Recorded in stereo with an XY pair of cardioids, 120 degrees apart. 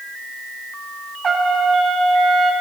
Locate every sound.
1.2 s a trumpet: 30° right, 1.4 m